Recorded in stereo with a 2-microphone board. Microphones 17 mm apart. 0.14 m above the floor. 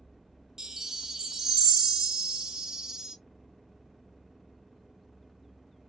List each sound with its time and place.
0.6 s a chime: 50° right (ahead or behind), 0.7 m